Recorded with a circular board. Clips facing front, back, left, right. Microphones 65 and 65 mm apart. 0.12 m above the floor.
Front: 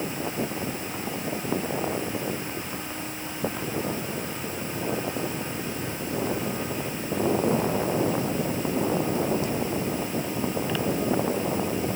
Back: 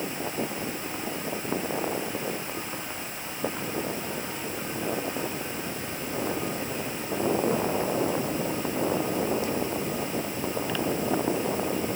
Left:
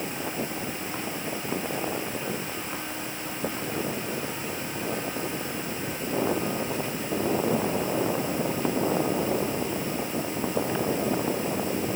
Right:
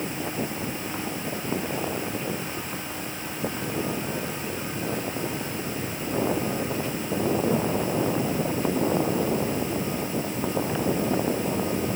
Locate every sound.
Only background noise.